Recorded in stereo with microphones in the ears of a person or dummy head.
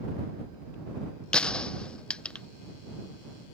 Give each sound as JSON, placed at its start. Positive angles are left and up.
{"t": 1.3, "sound": "a gunshot", "side_deg": 5}